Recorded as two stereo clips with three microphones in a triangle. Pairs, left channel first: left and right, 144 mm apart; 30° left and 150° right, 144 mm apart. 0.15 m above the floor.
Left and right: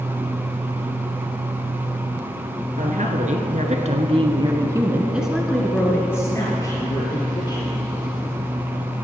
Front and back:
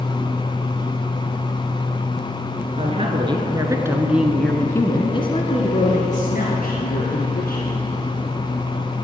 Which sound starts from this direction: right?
A woman speaking, at 2.8 s.